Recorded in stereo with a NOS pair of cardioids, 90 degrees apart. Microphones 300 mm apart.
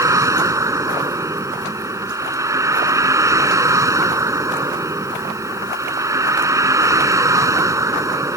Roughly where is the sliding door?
No sliding door in this recording.